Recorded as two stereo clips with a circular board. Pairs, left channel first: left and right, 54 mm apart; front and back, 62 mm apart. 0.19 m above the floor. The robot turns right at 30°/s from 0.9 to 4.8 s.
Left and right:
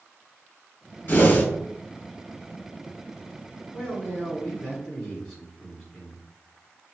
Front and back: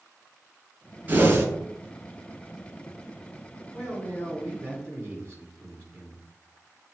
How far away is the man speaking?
About 2 m.